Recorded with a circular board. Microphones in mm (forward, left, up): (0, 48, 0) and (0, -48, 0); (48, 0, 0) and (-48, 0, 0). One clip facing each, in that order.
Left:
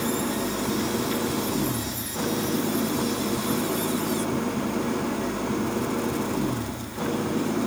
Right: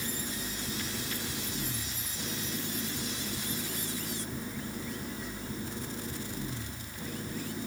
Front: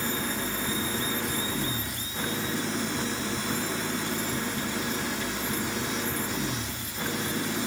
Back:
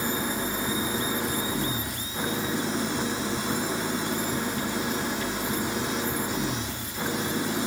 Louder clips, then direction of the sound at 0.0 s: Left 13 dB, back 2 dB; 105° left.